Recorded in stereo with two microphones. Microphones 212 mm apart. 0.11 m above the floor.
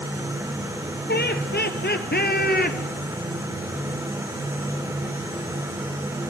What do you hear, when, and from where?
1.1 s laughter: 50° left (ahead or behind), 2 m; by 2.8 s 45° left (ahead or behind), 1.4 m